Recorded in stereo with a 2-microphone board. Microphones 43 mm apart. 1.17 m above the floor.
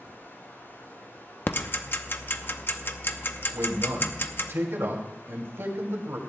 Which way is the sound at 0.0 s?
65° left (ahead or behind).